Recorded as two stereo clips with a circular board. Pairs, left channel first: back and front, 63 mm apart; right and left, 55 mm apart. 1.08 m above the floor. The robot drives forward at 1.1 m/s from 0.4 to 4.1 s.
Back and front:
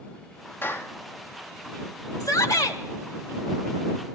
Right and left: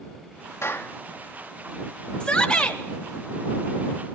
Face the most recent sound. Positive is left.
turn(degrees=-170)